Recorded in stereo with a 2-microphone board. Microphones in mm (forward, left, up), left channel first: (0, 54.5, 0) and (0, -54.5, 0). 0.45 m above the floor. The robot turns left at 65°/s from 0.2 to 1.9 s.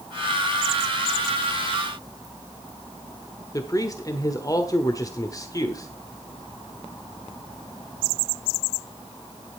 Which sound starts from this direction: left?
A man speaking, at 3.5 s.